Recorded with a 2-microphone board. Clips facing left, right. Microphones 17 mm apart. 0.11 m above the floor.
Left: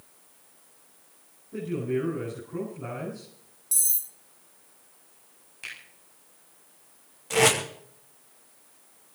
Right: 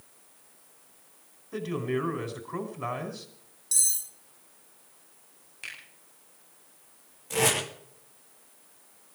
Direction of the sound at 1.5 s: 70° right (ahead or behind).